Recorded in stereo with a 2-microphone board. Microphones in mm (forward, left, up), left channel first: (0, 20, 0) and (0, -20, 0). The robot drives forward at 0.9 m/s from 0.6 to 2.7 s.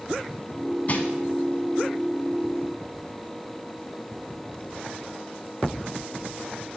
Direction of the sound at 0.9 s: 40° left (ahead or behind).